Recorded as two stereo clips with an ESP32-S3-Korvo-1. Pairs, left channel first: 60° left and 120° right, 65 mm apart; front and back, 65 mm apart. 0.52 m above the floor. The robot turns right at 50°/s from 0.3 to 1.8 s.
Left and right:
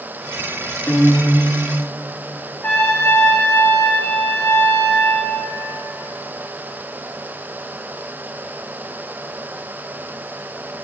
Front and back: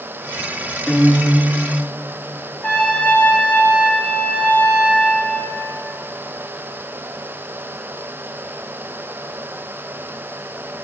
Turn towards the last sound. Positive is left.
turn(degrees=50)